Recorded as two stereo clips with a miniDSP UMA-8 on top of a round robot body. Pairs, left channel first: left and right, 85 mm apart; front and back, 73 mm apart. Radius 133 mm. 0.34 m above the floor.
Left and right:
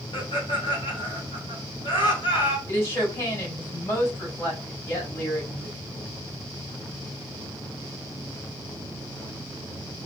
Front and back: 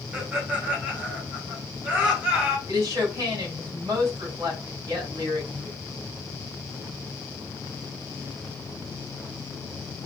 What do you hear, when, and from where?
0.1 s laughter: 110° left, 2.5 m
2.7 s a woman speaking: 145° left, 3 m